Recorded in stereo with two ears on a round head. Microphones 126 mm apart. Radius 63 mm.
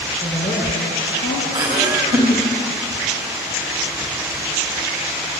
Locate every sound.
0.2 s a woman speaking: 10° left (ahead or behind), 9.5 m; by 1.4 s 5° left (ahead or behind), 10.5 m
1.5 s laughter: 30° right (ahead or behind), 4.5 m